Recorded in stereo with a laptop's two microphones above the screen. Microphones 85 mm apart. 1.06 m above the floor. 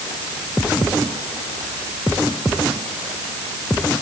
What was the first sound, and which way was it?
Only background noise.